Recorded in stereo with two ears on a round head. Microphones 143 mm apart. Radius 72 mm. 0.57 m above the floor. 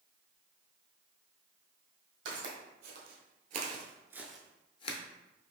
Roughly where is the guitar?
I don't hear a guitar.